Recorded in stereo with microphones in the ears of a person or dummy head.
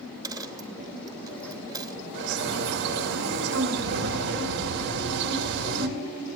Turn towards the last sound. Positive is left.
turn(degrees=-60)  # may be behind; listen again after turning